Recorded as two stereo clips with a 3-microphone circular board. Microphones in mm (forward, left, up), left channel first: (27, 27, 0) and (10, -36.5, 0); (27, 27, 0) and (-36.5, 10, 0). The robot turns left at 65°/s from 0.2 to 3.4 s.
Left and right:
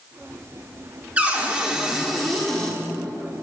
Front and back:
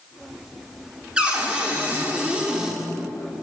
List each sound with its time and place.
1.2 s a cupboard door: 125° right, 1.0 m; by 2.8 s 130° left, 1.0 m